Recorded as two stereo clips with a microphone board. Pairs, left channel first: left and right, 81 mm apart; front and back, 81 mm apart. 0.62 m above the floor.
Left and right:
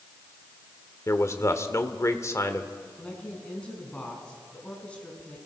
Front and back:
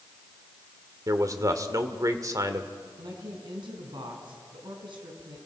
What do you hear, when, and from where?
1.1 s a man speaking: 140° left, 1.6 m
3.0 s a woman speaking: 165° left, 5 m